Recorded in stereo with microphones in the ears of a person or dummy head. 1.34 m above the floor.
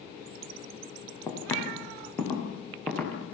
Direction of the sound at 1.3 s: 15° left (ahead or behind).